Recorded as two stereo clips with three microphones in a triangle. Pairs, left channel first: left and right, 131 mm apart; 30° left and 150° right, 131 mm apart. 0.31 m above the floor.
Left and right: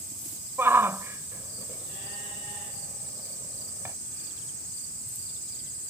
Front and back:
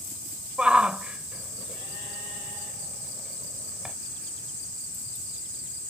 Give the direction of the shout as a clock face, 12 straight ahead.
3 o'clock.